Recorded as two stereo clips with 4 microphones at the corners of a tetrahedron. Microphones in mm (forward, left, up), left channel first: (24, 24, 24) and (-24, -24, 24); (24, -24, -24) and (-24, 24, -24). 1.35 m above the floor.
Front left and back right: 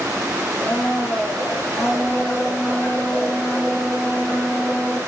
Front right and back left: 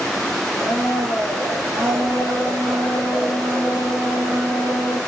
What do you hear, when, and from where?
0.6 s a blender: 105° left, 2 m